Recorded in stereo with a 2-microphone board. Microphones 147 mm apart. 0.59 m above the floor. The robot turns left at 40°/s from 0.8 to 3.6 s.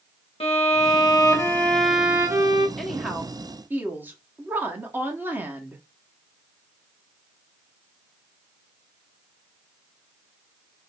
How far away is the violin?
About 0.9 m.